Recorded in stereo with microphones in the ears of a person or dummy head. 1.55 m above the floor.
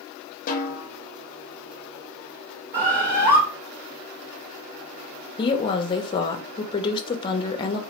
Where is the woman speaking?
30° left (ahead or behind), 0.5 m.